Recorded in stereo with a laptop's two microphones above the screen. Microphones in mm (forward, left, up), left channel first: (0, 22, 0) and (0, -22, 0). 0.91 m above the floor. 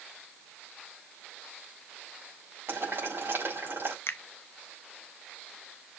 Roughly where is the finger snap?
Left.